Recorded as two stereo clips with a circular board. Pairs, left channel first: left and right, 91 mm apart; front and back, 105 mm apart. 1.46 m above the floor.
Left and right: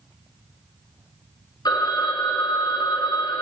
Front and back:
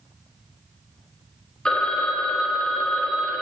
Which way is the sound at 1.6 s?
80° left.